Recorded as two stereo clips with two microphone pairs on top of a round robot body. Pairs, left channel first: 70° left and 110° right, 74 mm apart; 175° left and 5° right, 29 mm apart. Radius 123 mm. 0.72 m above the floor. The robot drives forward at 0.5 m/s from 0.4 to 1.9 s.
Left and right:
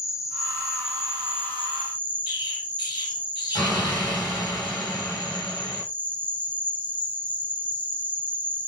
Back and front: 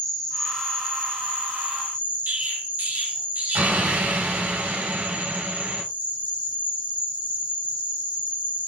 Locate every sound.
0.0 s an insect: 80° left, 1.0 m; by 8.7 s 145° left, 1.2 m
2.3 s an explosion: 35° left, 0.9 m